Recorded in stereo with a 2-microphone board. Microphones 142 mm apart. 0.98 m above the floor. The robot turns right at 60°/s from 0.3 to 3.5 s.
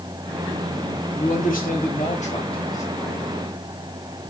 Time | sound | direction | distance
1.2 | a man speaking | 60° left | 1.9 m